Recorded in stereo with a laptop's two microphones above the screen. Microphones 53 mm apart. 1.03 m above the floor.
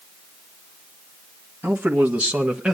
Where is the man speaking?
35° right (ahead or behind), 1.4 m; by 2.7 s 10° right (ahead or behind), 1.1 m.